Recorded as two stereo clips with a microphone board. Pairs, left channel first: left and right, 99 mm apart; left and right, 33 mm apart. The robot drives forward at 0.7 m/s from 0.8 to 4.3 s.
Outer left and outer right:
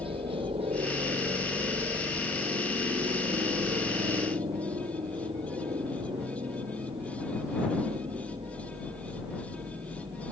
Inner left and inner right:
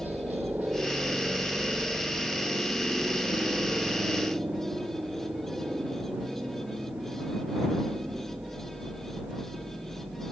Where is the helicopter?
65° right (ahead or behind).